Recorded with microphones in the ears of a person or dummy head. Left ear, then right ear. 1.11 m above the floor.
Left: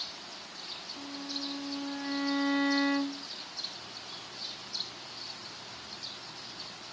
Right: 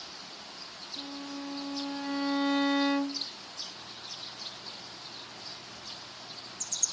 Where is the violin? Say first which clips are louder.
Left 1 dB; 10° right (ahead or behind).